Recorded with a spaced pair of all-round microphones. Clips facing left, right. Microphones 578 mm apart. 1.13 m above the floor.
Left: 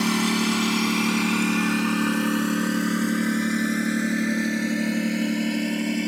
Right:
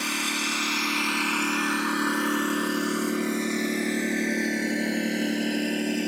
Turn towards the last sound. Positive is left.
turn(degrees=25)  # may be behind; listen again after turning